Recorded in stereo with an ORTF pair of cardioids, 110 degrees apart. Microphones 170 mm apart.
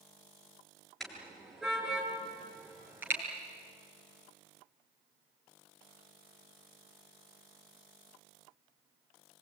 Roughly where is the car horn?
Ahead.